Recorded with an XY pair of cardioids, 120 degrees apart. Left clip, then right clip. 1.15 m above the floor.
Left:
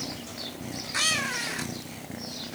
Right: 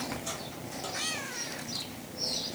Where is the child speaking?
I don't hear a child speaking.